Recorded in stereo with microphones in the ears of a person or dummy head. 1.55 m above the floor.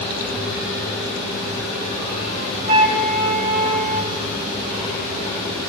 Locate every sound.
2.7 s a flute: 45° right (ahead or behind), 2 m